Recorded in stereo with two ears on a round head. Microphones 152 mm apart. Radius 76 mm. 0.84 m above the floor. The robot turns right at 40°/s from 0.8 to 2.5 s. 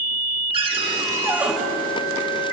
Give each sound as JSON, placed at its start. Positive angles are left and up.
{"t": 0.5, "sound": "a cupboard door", "side_deg": -30, "distance_m": 5.0}